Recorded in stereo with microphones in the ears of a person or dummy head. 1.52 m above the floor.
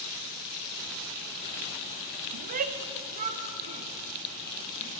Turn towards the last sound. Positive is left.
turn(degrees=-35)  # may be behind; listen again after turning